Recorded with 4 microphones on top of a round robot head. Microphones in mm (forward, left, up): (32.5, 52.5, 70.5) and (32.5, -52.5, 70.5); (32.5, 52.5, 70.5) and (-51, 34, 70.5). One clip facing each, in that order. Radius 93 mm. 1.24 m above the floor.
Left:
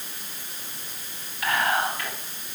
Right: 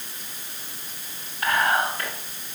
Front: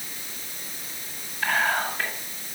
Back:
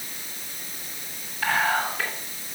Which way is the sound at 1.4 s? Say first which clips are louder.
Right 2 dB, back 1 dB; 150° right.